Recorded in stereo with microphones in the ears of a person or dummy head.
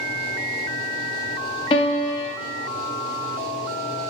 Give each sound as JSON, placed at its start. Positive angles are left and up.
{"t": 1.7, "sound": "a piano", "side_deg": 30, "distance_m": 0.8}